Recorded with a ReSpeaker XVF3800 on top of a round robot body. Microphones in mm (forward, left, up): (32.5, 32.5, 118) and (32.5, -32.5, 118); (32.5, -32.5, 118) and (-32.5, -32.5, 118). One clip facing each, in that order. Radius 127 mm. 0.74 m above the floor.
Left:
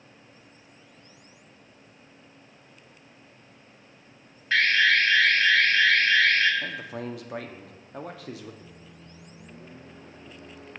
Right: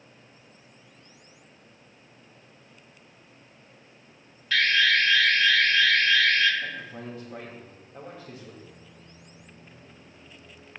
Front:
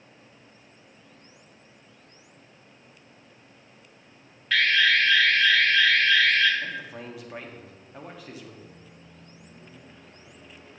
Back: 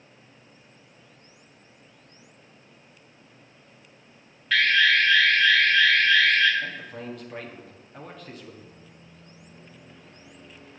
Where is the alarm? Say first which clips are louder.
Left 1 dB, back 1 dB; 90° left, 1.8 m.